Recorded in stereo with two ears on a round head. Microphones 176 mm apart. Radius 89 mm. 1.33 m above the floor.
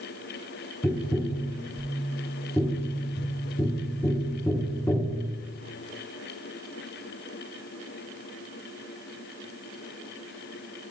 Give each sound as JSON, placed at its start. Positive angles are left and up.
{"t": 0.8, "sound": "tapping", "side_deg": 10, "distance_m": 0.6}